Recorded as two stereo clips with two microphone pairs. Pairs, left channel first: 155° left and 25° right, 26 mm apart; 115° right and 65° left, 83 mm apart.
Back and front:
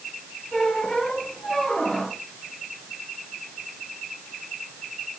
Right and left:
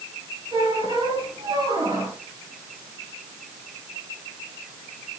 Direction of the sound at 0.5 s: 85° left.